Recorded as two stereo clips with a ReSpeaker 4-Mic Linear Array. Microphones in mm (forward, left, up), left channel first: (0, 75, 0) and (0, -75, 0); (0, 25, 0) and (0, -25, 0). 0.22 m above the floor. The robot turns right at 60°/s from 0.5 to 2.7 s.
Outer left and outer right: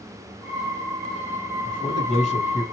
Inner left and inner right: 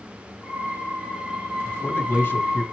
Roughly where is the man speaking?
Ahead left.